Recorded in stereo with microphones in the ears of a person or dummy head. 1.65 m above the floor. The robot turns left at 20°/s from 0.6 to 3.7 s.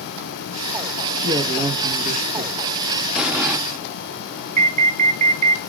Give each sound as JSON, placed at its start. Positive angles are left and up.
{"t": 1.2, "sound": "a man speaking", "side_deg": -40, "distance_m": 1.7}
{"t": 3.1, "sound": "an explosion", "side_deg": -5, "distance_m": 0.7}
{"t": 4.6, "sound": "an alarm", "side_deg": -40, "distance_m": 0.6}